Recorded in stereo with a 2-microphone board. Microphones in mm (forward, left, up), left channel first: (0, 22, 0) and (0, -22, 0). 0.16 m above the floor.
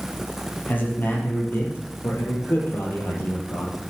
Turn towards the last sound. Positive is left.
turn(degrees=65)  # may be behind; listen again after turning